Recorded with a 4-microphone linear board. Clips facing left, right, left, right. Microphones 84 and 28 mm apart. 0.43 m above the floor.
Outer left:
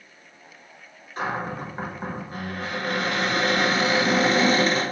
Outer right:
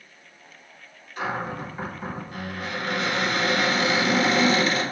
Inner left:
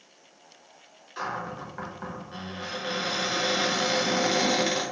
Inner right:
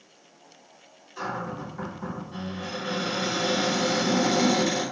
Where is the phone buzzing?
No phone buzzing in this recording.